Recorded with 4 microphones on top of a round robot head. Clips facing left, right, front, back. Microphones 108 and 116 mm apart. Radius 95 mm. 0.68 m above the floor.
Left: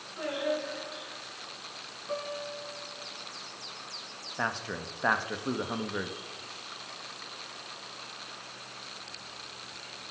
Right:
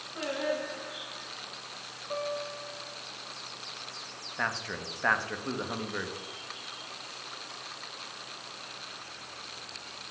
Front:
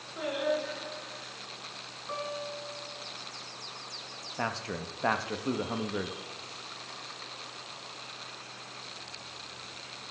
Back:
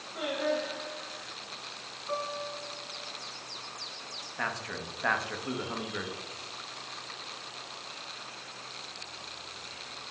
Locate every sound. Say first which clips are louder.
0.1 s singing: even, even; 115° right, 4 m
2.1 s a guitar: right 2 dB, back 1 dB; 100° left, 2.5 m
4.4 s a man speaking: left 1 dB, front 2 dB; 30° left, 0.8 m